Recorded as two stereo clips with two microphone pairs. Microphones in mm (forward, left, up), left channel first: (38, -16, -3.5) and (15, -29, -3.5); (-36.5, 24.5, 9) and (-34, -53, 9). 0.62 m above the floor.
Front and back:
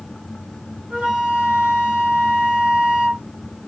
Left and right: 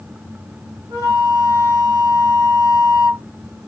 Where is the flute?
130° right, 1.8 m.